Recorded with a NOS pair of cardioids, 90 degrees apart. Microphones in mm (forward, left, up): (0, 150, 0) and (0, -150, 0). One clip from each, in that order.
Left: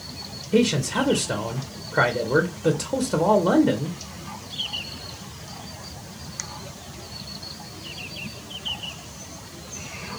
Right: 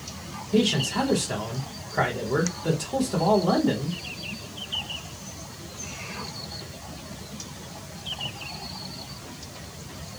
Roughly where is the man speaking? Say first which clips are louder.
Left 2 dB; ahead left.